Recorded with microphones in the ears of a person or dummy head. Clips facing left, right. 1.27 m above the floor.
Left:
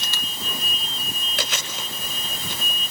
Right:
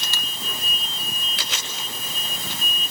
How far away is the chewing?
About 6 m.